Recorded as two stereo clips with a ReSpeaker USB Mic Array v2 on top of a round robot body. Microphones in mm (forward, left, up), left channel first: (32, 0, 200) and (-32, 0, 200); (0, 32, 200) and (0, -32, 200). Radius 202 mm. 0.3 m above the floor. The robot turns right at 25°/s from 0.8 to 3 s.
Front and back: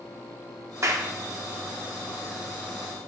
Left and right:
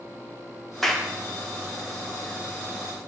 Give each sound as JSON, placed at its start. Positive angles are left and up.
{"t": 0.8, "sound": "a clap", "azimuth_deg": 175, "distance_m": 1.1}